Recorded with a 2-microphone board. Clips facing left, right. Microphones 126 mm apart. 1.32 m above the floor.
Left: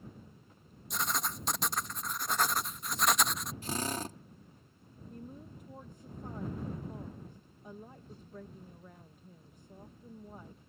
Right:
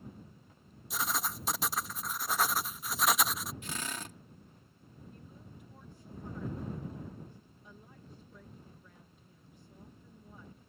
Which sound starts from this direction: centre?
Writing, at 0.9 s.